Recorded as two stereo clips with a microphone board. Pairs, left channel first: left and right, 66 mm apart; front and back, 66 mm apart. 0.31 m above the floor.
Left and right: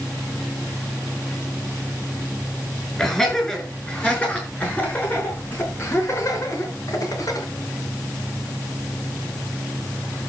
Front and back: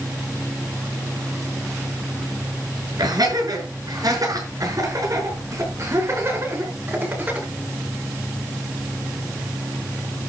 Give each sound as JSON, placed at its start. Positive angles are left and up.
{"t": 3.0, "sound": "laughter", "azimuth_deg": 170, "distance_m": 6.0}